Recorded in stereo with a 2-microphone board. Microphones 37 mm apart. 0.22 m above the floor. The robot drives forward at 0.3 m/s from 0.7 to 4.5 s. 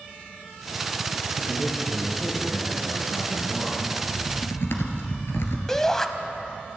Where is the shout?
10° left (ahead or behind), 1.0 m.